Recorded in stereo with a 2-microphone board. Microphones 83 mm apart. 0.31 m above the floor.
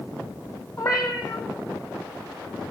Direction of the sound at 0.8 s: 45° left (ahead or behind).